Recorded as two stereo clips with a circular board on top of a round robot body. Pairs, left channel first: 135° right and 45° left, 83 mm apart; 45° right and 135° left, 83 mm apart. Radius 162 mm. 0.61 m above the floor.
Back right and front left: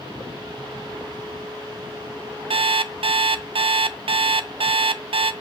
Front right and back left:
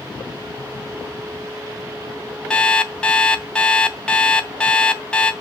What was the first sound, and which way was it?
An alarm clock, 35° left.